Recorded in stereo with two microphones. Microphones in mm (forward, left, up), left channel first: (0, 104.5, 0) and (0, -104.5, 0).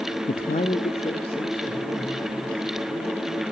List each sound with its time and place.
0.3 s a man speaking: 40° left (ahead or behind), 0.5 m; by 3.4 s 20° left (ahead or behind), 5 m